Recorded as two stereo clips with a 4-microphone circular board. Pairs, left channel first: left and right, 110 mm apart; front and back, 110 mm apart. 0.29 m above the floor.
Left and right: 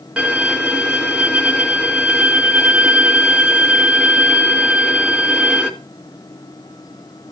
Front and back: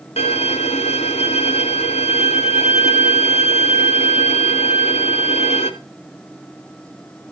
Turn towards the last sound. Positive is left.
turn(degrees=-10)